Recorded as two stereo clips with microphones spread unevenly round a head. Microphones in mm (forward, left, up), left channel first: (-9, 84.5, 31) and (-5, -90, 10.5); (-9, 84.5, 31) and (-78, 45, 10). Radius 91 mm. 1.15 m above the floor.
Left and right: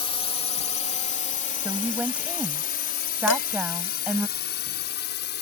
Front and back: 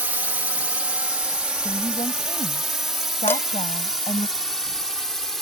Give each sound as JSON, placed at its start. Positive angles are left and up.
{"t": 0.0, "sound": "a drone", "azimuth_deg": 150}
{"t": 1.6, "sound": "a woman speaking", "azimuth_deg": -5}
{"t": 3.3, "sound": "dishes clattering", "azimuth_deg": 85}